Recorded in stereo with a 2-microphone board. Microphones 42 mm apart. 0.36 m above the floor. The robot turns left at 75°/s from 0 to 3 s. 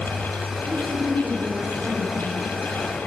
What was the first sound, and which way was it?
A woman speaking, 95° right.